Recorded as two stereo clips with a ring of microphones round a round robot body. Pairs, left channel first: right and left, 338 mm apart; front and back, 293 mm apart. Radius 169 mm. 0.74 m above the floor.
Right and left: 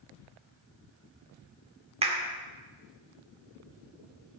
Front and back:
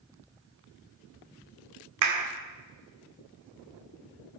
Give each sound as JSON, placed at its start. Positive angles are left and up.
{"t": 2.0, "sound": "a clap", "azimuth_deg": 165, "distance_m": 2.0}